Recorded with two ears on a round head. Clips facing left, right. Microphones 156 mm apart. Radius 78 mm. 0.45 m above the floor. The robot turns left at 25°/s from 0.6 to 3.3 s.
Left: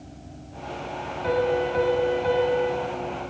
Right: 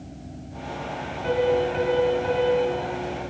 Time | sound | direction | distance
1.2 | a piano | 55° left | 2.5 m